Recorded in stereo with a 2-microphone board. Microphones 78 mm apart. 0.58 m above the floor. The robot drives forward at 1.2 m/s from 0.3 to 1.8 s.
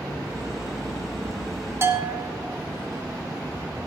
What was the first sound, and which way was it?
A bell, 35° right (ahead or behind).